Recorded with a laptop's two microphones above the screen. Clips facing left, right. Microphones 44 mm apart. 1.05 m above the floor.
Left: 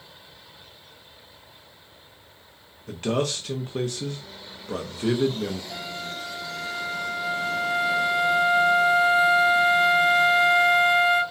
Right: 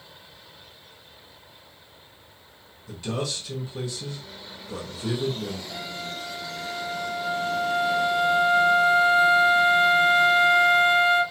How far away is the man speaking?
About 1.2 m.